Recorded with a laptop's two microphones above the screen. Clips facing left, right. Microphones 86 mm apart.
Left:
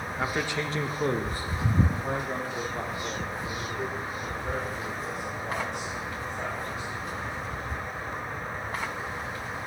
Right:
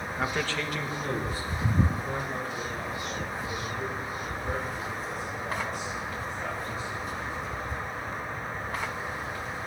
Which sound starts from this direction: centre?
A man speaking, at 0.2 s.